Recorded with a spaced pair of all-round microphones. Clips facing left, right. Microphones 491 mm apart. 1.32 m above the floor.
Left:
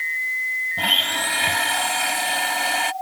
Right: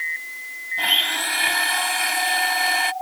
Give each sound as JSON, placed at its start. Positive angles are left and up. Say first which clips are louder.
{"t": 0.8, "sound": "a blender", "louder": "left 3 dB", "side_deg": 70}